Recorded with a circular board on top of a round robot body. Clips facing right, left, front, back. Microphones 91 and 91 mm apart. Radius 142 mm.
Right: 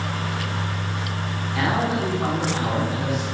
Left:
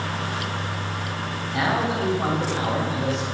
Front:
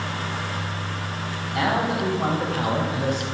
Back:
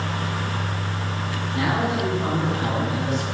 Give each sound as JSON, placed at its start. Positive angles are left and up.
{"t": 1.5, "sound": "a man speaking", "azimuth_deg": 20, "distance_m": 5.0}